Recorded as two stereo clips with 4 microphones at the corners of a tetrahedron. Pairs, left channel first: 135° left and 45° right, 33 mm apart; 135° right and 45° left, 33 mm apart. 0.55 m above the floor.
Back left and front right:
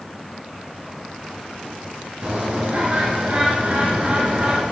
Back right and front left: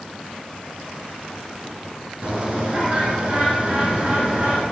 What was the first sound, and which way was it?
A bird, 5° right.